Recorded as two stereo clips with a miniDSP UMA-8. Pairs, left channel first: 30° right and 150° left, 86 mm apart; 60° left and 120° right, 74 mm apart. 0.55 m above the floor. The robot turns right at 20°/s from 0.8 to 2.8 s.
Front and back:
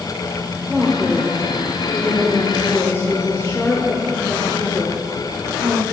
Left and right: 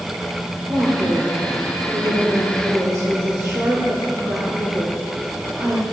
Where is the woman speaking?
125° right, 1.9 m; by 5.8 s 85° right, 1.9 m.